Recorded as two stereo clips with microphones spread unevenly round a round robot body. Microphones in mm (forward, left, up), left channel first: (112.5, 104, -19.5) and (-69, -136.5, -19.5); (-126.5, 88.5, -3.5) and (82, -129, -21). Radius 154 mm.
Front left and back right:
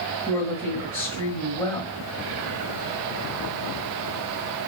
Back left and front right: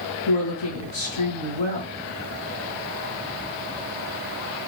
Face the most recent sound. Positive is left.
turn(degrees=120)